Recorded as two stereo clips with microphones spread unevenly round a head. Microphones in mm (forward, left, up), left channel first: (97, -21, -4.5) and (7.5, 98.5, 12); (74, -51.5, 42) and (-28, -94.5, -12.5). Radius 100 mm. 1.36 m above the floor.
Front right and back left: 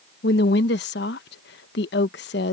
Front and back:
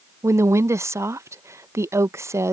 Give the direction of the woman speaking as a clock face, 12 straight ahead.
3 o'clock.